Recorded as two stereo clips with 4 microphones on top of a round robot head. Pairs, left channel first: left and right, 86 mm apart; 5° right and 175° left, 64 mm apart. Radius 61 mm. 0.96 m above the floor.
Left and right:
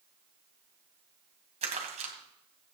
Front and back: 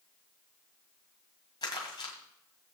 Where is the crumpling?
55° right, 2 m.